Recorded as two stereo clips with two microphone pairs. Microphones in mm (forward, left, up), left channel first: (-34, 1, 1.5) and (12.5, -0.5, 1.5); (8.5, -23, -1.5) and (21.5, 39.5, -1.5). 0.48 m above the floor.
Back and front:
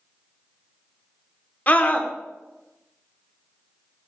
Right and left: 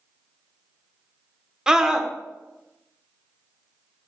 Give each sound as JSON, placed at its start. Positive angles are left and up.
{"t": 1.7, "sound": "a scream", "azimuth_deg": 150, "distance_m": 1.0}